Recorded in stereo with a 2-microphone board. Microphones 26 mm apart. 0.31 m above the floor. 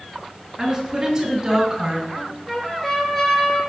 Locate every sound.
0.6 s a woman speaking: 25° right (ahead or behind), 6 m; by 2.1 s 20° right (ahead or behind), 4.5 m
2.2 s a trumpet: 5° left (ahead or behind), 4.5 m